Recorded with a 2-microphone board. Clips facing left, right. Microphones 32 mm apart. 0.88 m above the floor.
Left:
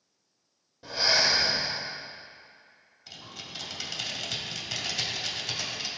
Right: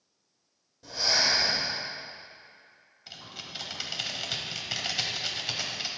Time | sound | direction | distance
0.8 | breathing | 35° left (ahead or behind) | 3.5 m
3.1 | typing on a keyboard | 15° right (ahead or behind) | 1.6 m